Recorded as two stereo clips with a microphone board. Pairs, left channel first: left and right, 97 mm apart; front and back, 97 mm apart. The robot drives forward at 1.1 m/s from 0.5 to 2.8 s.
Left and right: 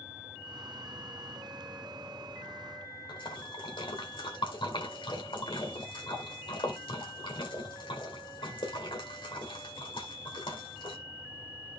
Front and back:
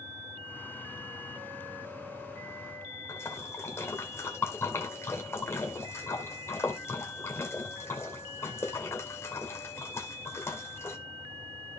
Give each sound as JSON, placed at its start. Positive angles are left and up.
{"t": 3.1, "sound": "a splash", "azimuth_deg": 65, "distance_m": 2.0}